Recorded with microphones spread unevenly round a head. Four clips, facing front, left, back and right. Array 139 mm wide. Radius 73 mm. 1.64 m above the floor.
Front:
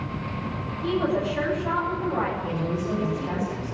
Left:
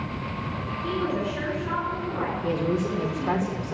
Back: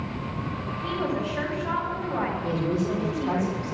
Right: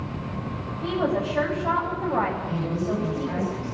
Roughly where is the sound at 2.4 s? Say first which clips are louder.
Left 2 dB, back 2 dB; left.